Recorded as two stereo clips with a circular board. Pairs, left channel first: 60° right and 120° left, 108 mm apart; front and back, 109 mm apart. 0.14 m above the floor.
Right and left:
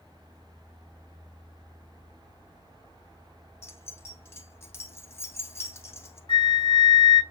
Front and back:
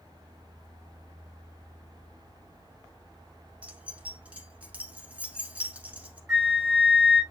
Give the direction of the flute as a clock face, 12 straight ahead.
3 o'clock.